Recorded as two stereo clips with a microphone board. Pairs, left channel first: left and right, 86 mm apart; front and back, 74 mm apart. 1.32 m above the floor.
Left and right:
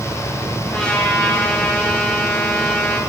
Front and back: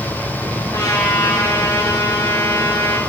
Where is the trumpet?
10° left, 4.5 m.